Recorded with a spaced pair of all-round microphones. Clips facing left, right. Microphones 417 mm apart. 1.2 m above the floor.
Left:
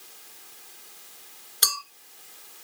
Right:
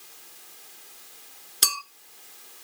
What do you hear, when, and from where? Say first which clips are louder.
1.6 s a clink: right 1 dB; 45° right (ahead or behind), 1.1 m